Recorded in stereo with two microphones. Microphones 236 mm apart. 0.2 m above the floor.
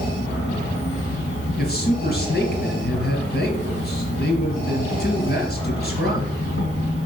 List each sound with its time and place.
0.0 s an insect: 55° left (ahead or behind), 2.5 m
1.6 s a man speaking: 45° left (ahead or behind), 3 m